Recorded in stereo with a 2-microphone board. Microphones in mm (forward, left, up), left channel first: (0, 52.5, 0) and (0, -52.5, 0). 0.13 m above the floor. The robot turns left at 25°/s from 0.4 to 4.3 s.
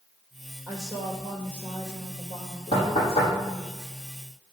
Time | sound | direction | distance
0.7 | a woman speaking | 150° left | 3 m
2.7 | knocking | 70° left (ahead or behind) | 5 m